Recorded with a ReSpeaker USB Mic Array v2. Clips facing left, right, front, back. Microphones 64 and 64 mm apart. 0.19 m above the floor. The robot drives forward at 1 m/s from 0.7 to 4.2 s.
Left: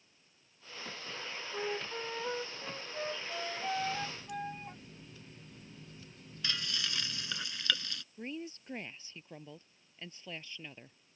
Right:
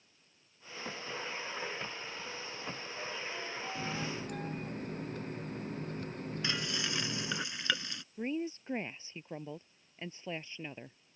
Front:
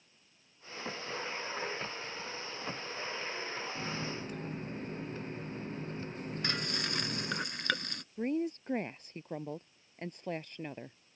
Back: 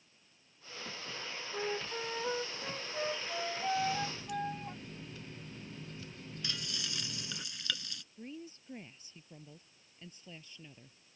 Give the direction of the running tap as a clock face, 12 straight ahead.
2 o'clock.